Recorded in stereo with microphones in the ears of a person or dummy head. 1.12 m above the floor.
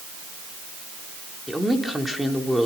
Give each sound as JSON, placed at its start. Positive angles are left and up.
{"t": 1.5, "sound": "a woman speaking", "side_deg": 0, "distance_m": 3.5}